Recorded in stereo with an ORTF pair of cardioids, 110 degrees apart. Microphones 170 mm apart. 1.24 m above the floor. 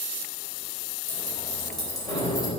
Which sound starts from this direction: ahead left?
Keys jangling, at 1.1 s.